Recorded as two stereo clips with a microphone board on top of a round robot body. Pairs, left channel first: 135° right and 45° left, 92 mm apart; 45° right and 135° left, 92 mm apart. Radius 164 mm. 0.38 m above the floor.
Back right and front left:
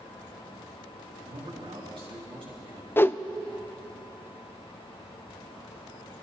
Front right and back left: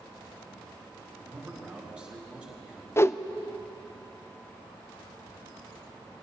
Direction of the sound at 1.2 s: 60° left.